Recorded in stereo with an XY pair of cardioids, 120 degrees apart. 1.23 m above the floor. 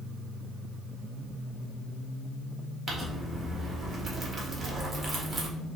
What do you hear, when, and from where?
2.9 s crumpling: 25° right, 1.7 m